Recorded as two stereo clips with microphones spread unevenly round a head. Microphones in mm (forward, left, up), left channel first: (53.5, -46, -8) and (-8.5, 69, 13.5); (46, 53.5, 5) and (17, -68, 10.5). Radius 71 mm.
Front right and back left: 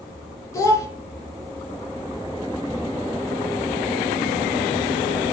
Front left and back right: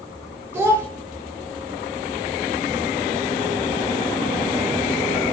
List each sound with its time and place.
0.5 s a child speaking: 110° right, 0.7 m